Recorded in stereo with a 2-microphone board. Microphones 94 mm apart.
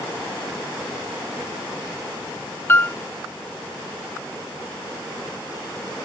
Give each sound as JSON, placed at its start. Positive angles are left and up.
{"t": 2.7, "sound": "a piano", "side_deg": 25}